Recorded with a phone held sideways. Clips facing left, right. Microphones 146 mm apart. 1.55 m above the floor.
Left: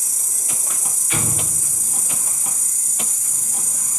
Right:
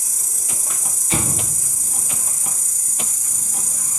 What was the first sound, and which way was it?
An insect, 25° left (ahead or behind).